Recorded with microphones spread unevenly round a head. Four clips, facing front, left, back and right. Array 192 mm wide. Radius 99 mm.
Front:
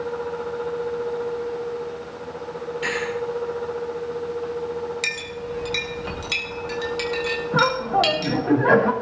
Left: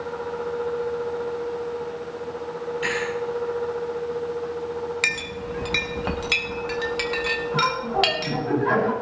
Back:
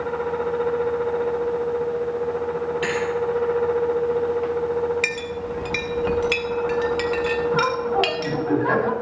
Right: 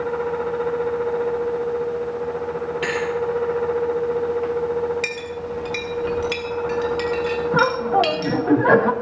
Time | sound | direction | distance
2.8 | a thud | 125° right | 8 m
5.0 | a clink | 120° left | 1.5 m
7.5 | laughter | 60° right | 2.5 m